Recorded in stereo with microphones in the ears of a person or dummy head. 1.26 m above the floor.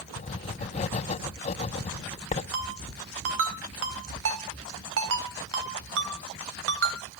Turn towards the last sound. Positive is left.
turn(degrees=-75)  # may be behind; listen again after turning